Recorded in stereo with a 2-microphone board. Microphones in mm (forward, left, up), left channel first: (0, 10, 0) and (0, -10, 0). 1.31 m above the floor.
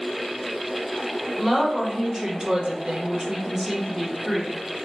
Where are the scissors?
I don't hear scissors.